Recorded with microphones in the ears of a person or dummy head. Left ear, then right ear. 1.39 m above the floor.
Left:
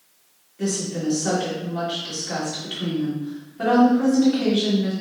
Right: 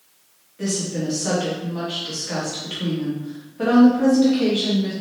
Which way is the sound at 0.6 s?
Centre (ahead or behind).